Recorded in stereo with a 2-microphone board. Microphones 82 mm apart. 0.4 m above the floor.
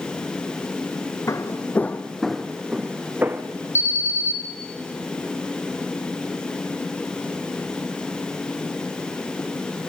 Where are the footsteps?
40° left (ahead or behind), 1.1 m; by 3.4 s 25° right (ahead or behind), 1.5 m.